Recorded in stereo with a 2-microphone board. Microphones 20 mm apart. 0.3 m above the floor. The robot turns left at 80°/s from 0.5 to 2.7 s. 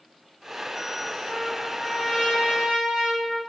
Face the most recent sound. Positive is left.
turn(degrees=-55)